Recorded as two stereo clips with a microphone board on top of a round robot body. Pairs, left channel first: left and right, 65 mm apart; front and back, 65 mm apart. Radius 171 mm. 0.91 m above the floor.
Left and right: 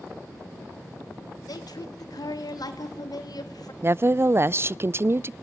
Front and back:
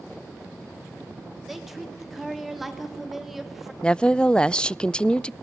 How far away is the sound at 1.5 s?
About 3 m.